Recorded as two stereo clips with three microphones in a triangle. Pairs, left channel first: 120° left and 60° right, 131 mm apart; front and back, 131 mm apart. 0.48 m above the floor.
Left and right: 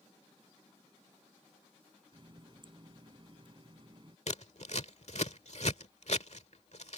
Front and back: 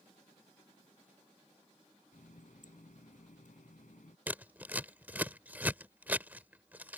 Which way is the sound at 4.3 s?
105° left.